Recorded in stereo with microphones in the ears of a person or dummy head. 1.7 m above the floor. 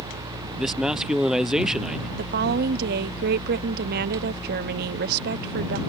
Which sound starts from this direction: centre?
A man speaking, at 0.6 s.